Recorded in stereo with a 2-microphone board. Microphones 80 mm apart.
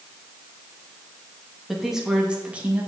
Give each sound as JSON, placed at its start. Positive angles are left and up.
{"t": 1.7, "sound": "a woman speaking", "side_deg": 0, "distance_m": 3.0}